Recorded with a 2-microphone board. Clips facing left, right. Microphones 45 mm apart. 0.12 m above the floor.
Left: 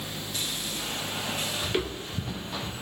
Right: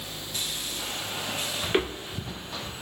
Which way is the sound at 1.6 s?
35° right (ahead or behind).